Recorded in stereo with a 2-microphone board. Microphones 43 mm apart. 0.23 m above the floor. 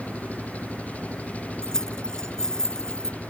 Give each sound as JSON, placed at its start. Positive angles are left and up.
{"t": 0.0, "sound": "an engine running", "side_deg": 35}
{"t": 1.6, "sound": "keys jangling", "side_deg": 15}